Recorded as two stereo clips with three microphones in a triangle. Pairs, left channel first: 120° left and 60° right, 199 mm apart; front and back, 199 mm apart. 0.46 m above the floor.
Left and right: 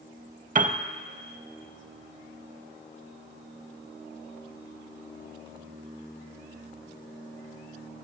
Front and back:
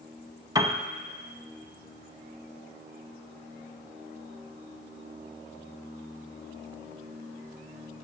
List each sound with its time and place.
0.6 s a piano: 110° right, 0.6 m